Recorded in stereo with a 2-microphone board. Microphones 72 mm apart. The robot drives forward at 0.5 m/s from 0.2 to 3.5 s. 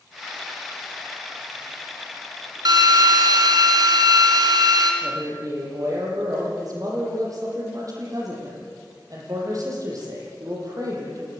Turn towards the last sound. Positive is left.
turn(degrees=-50)  # may be behind; listen again after turning